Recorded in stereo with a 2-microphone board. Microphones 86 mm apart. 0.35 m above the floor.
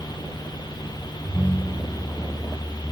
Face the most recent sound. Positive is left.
turn(degrees=40)  # may be behind; listen again after turning